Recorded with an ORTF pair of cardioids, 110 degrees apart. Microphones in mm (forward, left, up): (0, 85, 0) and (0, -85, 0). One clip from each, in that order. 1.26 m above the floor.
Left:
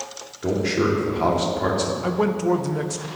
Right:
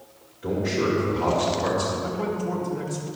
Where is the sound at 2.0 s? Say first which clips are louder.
Left 6 dB; 65° left, 0.9 m.